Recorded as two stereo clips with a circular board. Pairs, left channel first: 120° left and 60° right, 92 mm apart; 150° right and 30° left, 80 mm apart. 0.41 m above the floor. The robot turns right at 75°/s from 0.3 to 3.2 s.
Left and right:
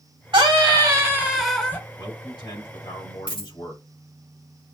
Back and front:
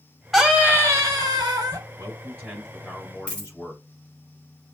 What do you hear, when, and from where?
0.3 s a scream: 55° right, 2 m; by 1.8 s 55° left, 2 m
2.0 s a man speaking: 65° left, 3.5 m; by 3.9 s 155° left, 3.5 m
3.3 s a dropped coin: 145° left, 3.5 m